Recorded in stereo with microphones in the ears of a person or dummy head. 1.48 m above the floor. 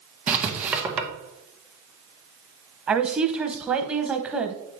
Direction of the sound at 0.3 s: 10° right (ahead or behind).